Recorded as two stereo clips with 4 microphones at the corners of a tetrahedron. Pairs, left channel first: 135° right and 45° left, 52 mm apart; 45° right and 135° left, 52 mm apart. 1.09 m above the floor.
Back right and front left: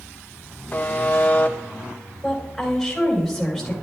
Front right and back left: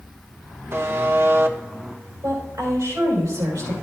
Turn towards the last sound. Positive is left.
turn(degrees=135)